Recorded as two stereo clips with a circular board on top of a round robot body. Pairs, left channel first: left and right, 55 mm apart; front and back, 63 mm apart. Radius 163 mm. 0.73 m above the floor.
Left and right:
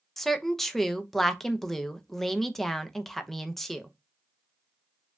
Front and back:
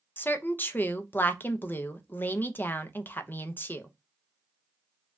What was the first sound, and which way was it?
A woman speaking, 10° left.